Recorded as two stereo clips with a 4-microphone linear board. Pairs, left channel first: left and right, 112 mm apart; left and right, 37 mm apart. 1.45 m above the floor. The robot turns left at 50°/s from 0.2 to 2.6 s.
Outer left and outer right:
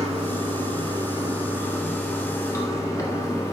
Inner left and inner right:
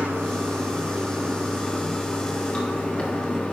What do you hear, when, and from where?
0.0 s running water: 95° right, 1.6 m; by 3.5 s 145° left, 1.6 m